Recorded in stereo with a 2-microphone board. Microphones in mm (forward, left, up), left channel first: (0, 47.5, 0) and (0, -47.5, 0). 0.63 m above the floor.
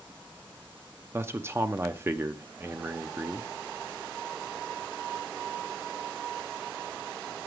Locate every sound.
1.1 s a man speaking: 25° right (ahead or behind), 0.6 m